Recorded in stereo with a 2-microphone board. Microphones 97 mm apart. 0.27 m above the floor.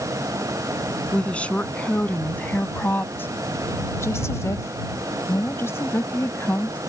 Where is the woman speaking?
15° left (ahead or behind); by 6.8 s 20° left (ahead or behind).